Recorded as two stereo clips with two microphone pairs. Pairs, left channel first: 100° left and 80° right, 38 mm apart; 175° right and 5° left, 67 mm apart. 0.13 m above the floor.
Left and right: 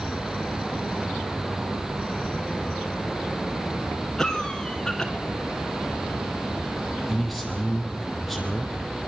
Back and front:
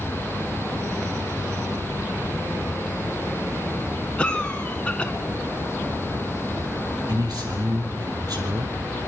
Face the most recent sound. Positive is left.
turn(degrees=10)